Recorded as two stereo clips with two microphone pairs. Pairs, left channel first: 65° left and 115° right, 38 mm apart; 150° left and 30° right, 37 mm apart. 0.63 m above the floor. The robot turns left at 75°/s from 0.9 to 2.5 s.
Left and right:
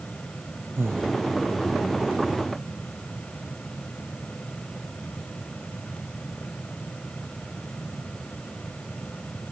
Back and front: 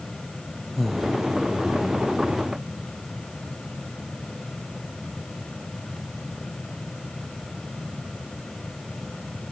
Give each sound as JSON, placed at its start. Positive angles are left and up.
{"t": 0.8, "sound": "breathing", "azimuth_deg": -120}